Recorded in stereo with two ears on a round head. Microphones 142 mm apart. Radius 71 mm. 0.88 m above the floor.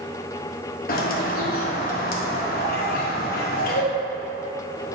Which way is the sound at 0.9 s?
60° left (ahead or behind).